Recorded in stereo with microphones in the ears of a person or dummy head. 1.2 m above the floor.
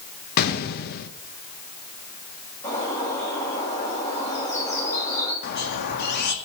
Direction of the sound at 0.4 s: 50° left (ahead or behind).